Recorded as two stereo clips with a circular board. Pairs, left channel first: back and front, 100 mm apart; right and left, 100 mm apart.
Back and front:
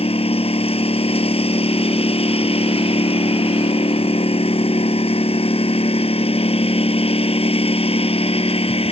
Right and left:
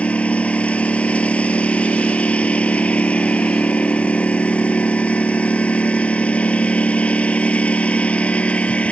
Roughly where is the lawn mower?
Behind.